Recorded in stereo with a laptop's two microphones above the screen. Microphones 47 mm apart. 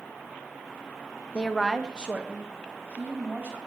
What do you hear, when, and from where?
1.3 s a woman speaking: 25° left (ahead or behind), 0.6 m; by 3.6 s 35° right (ahead or behind), 3 m